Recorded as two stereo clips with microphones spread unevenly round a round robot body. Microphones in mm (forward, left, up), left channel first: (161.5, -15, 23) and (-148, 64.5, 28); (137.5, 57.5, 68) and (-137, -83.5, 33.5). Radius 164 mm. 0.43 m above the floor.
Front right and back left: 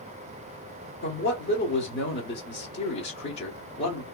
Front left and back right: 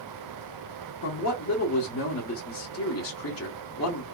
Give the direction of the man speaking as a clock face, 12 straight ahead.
12 o'clock.